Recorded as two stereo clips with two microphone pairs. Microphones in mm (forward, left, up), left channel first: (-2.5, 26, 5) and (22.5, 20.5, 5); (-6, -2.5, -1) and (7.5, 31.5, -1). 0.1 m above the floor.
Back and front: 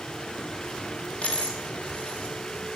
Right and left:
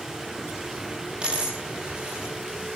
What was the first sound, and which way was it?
A dropped coin, 130° left.